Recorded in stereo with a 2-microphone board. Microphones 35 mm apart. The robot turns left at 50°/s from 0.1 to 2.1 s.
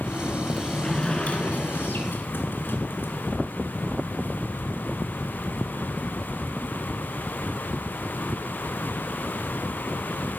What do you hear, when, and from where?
0.5 s a sliding door: straight behind, 1.9 m; by 3.1 s 100° left, 1.9 m